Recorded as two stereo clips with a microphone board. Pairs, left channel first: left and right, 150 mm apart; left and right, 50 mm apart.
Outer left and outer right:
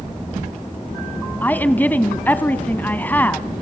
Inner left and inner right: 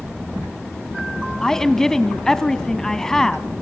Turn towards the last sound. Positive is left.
turn(degrees=10)  # may be behind; listen again after turning